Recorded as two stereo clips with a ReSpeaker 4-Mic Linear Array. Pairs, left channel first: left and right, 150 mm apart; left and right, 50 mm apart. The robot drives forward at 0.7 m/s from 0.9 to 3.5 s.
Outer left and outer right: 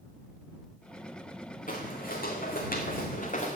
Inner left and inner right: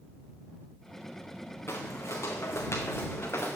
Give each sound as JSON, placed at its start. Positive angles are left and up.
{"t": 1.7, "sound": "footsteps", "side_deg": 65, "distance_m": 2.5}